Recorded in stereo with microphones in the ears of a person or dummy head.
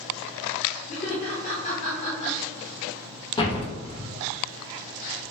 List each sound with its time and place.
0.9 s laughter: 30° left (ahead or behind), 0.7 m
3.4 s a door slam: 25° left (ahead or behind), 0.7 m